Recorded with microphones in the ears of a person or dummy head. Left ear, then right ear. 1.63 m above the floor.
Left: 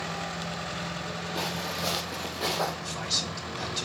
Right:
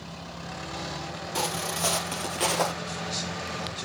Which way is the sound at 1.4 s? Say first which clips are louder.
Right 4 dB; 40° right (ahead or behind).